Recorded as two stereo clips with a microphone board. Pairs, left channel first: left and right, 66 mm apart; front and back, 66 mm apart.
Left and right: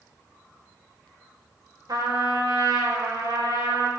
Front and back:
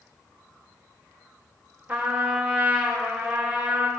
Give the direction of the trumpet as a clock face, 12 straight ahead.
4 o'clock.